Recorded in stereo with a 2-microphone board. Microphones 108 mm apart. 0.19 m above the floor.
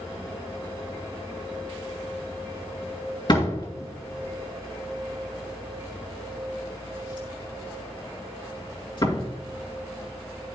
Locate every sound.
3.3 s a door slam: 45° left (ahead or behind), 2 m